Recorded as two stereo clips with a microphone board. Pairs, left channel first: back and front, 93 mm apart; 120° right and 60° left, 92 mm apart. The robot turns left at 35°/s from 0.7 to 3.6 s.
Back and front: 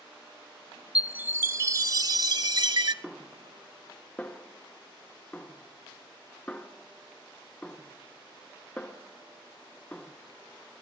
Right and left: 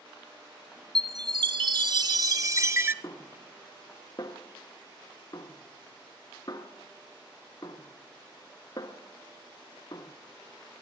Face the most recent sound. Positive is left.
turn(degrees=-115)